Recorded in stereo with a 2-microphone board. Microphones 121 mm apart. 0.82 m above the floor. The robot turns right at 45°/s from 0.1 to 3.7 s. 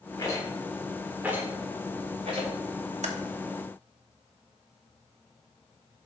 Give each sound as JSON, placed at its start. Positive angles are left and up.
{"t": 0.2, "sound": "a rattle", "side_deg": 35, "distance_m": 1.6}
{"t": 3.0, "sound": "typing on a keyboard", "side_deg": -80, "distance_m": 0.9}